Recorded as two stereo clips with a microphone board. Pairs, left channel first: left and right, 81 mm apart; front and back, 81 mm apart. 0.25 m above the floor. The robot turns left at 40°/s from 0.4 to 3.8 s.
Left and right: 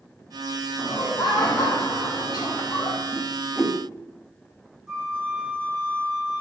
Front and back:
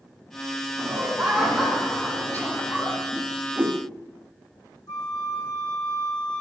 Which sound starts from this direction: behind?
A whoosh, at 3.1 s.